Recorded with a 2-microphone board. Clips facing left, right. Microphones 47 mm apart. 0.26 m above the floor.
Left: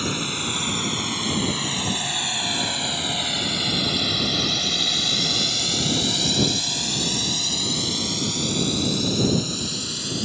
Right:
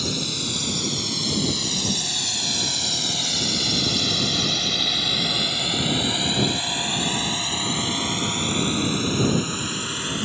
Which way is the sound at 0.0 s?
35° left (ahead or behind).